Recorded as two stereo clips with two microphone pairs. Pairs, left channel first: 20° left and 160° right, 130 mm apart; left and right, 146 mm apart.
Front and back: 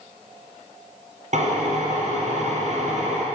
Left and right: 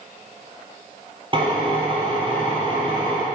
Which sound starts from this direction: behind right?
A drill, at 1.3 s.